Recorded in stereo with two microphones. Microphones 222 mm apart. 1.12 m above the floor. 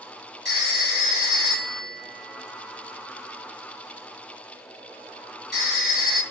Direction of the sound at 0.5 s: 50° left (ahead or behind).